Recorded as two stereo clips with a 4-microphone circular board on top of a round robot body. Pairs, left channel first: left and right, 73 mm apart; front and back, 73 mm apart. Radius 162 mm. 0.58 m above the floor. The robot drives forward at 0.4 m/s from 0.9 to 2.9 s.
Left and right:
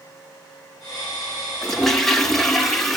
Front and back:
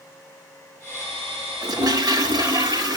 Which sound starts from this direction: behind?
A toilet flushing, at 1.6 s.